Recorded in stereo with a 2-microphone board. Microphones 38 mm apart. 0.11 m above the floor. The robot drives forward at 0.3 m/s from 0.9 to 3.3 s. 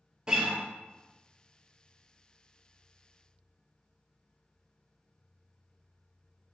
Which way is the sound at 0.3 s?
20° right (ahead or behind).